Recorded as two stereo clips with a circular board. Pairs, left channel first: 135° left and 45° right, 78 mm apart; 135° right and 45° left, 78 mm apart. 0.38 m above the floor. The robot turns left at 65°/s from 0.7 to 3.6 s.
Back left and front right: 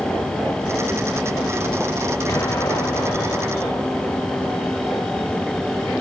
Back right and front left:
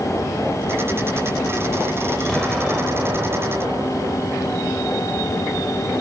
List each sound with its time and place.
2.3 s an explosion: 150° left, 1.9 m; by 4.7 s 65° left, 1.9 m